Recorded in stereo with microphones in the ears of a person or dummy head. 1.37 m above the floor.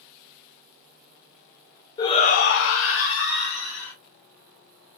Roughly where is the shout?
Left.